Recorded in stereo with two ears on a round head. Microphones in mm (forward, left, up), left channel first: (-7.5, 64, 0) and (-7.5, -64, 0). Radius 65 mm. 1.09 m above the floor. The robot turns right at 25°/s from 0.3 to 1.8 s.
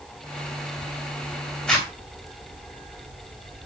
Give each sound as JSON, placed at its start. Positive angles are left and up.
{"t": 1.7, "sound": "a zipper", "side_deg": 5, "distance_m": 3.0}